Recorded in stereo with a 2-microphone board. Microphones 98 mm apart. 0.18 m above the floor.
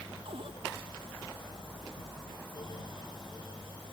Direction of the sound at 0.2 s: 70° right (ahead or behind).